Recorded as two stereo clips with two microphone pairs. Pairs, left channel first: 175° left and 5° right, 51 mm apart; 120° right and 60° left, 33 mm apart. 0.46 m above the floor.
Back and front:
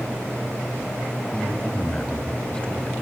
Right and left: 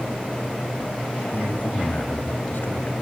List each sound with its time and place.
1.3 s a man speaking: 120° right, 3 m